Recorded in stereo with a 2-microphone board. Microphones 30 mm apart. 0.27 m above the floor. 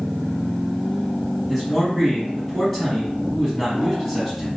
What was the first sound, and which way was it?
A man speaking, 15° left (ahead or behind).